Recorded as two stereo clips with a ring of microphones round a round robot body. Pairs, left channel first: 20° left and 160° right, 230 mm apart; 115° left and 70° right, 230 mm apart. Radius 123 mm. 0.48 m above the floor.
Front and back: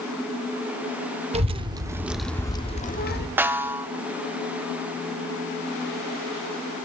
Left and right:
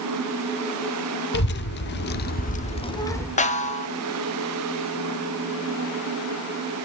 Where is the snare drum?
130° left, 1.1 m.